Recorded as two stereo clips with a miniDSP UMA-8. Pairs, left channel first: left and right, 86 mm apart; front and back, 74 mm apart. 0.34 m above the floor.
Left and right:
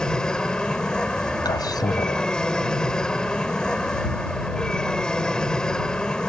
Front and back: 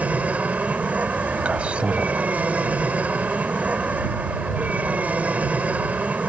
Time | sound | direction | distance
0.0 | an aircraft | 155° left | ?
1.4 | a man speaking | 110° left | ?